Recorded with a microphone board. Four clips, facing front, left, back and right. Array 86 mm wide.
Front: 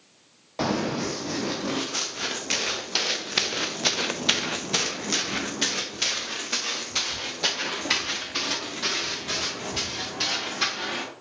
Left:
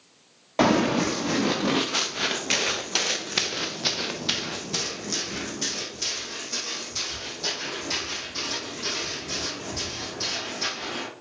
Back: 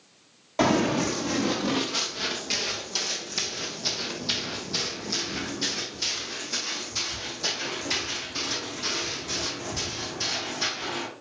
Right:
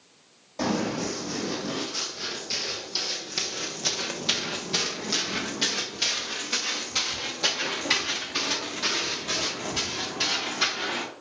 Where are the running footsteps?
100° left, 2.0 m; by 11.1 s 40° right, 5.5 m.